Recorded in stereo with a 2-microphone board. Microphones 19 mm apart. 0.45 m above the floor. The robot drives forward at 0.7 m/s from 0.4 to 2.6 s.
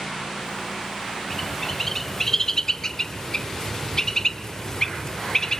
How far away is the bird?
About 1.5 m.